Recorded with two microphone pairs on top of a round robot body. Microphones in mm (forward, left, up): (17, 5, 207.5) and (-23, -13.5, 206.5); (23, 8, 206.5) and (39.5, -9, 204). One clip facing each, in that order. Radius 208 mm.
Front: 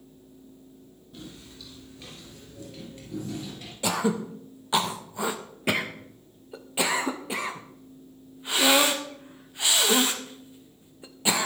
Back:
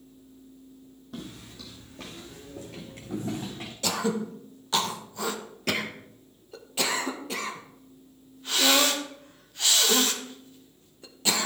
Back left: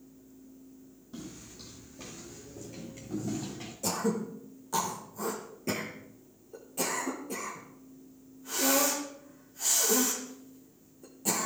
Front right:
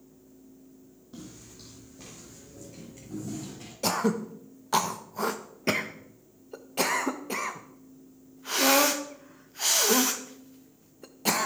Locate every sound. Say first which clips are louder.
1.1 s footsteps: back 3 dB, back left 1 dB; 130° right, 2.5 m; by 3.7 s 155° right, 4.5 m
3.8 s throat clearing: front 2 dB, front right 4 dB; 45° right, 1.3 m